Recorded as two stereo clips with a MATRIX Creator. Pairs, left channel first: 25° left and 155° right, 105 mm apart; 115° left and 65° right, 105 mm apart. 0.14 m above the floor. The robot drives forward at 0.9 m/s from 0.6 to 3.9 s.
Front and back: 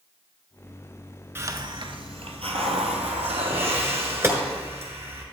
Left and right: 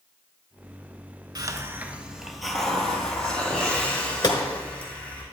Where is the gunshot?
145° left, 1.1 m.